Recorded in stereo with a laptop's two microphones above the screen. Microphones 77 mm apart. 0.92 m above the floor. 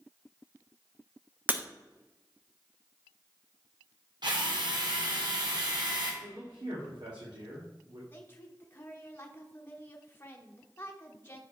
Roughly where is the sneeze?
I don't hear a sneeze.